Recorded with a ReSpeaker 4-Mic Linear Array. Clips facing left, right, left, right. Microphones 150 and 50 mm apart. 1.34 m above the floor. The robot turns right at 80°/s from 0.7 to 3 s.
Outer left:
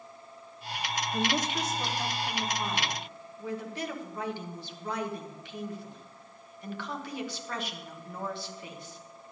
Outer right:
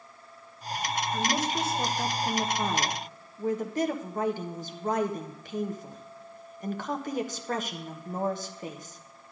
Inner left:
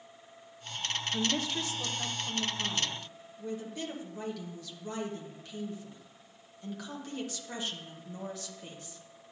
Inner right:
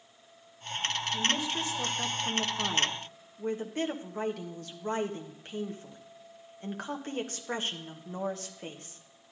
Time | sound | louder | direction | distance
1.1 | a woman speaking | even, even | 165° left | 1.1 m